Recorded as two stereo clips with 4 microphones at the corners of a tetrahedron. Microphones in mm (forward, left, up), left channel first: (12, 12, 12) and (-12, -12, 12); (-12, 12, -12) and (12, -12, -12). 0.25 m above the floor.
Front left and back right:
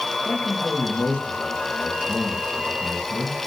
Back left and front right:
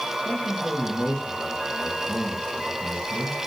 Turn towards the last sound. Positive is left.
turn(degrees=95)